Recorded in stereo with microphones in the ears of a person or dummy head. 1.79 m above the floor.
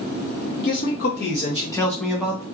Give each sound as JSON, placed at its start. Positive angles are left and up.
{"t": 0.6, "sound": "a man speaking", "side_deg": 60, "distance_m": 1.3}